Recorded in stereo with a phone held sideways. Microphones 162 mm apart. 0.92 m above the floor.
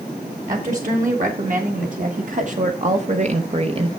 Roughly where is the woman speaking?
Right.